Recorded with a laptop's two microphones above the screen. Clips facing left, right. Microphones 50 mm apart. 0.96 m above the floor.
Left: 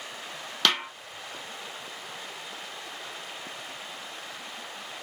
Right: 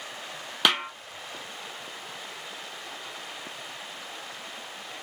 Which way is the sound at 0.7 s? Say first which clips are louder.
Right 1 dB; 15° right (ahead or behind).